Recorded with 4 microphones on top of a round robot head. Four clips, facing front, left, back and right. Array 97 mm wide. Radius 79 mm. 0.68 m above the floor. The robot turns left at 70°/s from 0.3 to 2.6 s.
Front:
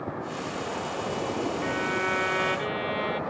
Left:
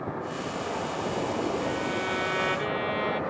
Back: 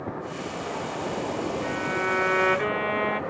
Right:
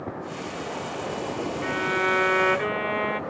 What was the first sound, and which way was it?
A violin, 70° right.